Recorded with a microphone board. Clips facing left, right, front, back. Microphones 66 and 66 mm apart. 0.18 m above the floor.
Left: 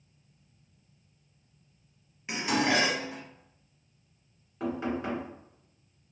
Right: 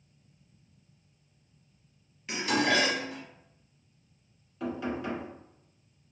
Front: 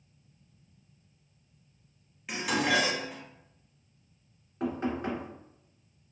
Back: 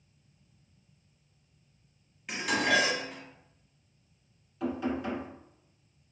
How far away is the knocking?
About 1.5 m.